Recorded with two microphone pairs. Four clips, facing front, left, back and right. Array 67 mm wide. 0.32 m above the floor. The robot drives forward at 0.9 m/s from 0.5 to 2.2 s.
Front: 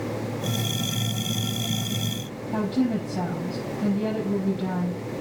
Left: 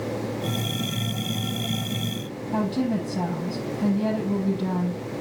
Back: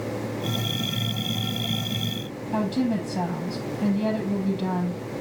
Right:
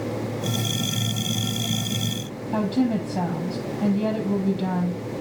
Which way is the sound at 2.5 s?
115° right.